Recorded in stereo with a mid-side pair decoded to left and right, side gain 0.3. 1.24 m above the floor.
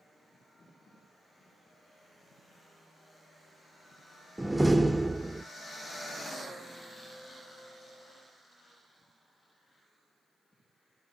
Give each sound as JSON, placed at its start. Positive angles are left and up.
{"t": 4.4, "sound": "a door slam", "azimuth_deg": -15, "distance_m": 0.7}